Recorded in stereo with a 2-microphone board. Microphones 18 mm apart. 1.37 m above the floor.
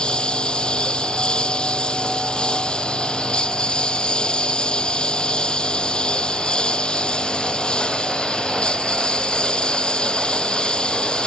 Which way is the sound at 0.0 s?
70° left (ahead or behind).